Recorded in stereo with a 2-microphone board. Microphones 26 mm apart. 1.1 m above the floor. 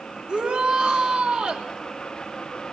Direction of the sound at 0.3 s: 45° right (ahead or behind).